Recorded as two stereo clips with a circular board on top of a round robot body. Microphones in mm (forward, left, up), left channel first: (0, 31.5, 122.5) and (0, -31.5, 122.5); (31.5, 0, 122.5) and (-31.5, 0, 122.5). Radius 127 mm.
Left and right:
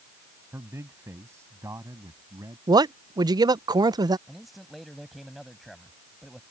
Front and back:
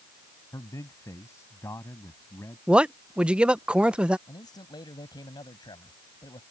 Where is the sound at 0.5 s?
40° right; by 2.6 s 50° right.